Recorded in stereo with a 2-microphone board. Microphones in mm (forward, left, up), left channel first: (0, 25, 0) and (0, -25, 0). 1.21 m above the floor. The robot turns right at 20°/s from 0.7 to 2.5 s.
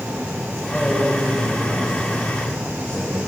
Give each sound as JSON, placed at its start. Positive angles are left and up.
{"t": 0.7, "sound": "a man speaking", "azimuth_deg": 0, "distance_m": 5.5}